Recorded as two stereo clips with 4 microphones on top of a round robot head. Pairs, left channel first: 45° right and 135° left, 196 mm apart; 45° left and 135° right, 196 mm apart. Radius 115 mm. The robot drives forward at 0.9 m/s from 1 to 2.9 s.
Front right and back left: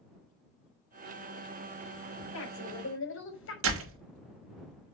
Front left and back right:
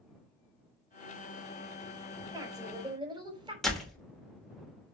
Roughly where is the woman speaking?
Ahead right.